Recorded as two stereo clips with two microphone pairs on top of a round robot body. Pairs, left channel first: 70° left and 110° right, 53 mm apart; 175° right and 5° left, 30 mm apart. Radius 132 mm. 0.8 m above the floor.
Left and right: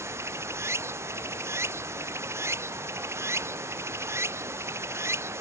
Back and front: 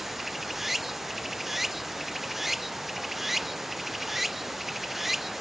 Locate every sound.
0.0 s running water: 75° right